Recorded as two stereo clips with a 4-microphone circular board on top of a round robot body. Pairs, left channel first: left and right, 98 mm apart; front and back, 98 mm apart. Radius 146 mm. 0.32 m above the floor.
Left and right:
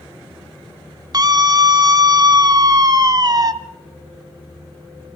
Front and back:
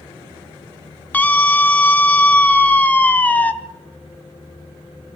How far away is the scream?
About 1.1 m.